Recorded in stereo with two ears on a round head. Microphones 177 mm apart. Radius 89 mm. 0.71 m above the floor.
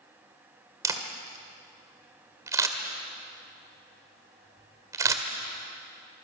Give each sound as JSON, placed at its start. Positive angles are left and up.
{"t": 0.8, "sound": "a camera shutter", "side_deg": -15, "distance_m": 1.8}